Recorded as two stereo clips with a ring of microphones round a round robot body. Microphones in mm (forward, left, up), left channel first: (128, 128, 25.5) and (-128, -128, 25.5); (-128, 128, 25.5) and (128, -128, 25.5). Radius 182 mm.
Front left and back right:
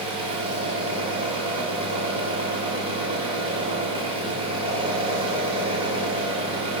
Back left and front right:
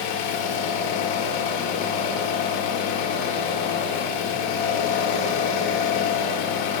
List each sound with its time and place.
0.0 s an engine running: 150° left, 1.2 m